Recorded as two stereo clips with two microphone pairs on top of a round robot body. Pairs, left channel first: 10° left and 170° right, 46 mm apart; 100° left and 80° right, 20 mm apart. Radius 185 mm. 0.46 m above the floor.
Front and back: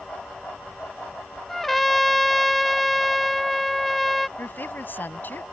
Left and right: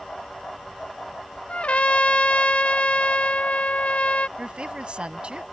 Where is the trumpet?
95° left.